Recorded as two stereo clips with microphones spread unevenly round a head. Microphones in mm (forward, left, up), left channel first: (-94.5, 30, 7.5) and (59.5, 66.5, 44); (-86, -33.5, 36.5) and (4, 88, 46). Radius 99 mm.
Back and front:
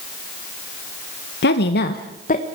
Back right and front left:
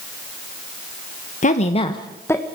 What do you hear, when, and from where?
1.4 s a woman speaking: 165° right, 1.2 m; by 2.5 s 155° left, 1.3 m